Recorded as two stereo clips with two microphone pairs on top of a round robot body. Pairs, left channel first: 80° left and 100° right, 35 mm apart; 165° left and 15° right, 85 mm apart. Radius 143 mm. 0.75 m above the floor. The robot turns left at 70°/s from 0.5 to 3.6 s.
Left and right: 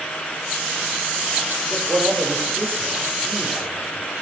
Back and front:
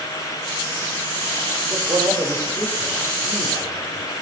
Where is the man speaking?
55° right, 4 m; by 4.1 s 175° left, 4 m.